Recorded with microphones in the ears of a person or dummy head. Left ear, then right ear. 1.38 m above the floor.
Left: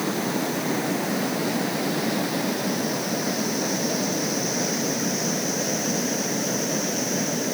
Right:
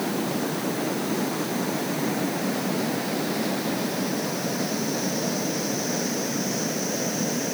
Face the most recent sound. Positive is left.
No sound to turn to.